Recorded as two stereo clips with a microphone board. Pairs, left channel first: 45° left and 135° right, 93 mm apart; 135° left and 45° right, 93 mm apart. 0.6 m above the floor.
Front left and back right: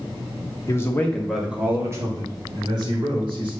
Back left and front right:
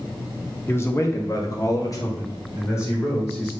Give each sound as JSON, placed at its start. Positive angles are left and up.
{"t": 0.7, "sound": "a man speaking", "azimuth_deg": 85, "distance_m": 1.6}